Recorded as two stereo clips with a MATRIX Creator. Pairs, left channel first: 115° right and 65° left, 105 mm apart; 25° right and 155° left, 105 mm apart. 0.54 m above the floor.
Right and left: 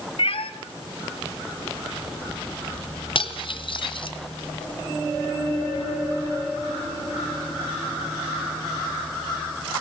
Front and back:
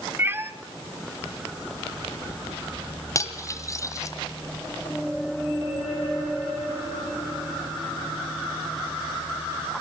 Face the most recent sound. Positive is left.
turn(degrees=-80)